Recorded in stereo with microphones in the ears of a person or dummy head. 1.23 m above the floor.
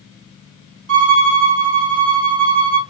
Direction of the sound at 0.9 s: 75° right (ahead or behind).